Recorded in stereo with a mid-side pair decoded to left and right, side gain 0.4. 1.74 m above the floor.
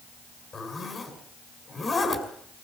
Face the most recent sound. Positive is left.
turn(degrees=40)